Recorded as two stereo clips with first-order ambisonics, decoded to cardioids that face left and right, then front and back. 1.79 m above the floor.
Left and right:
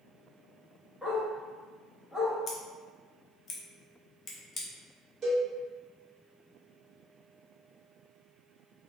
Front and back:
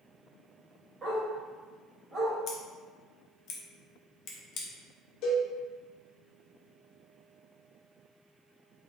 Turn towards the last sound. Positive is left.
turn(degrees=-30)